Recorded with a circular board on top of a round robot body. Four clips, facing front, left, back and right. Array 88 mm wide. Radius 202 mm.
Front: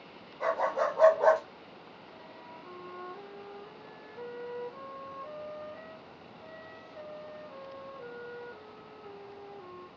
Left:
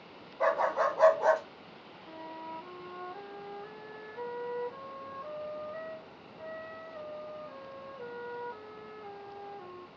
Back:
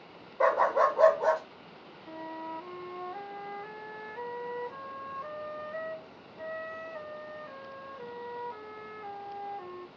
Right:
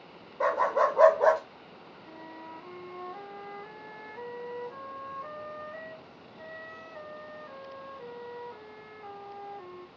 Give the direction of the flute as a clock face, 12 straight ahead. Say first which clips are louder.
Left 3 dB, back 13 dB; 6 o'clock.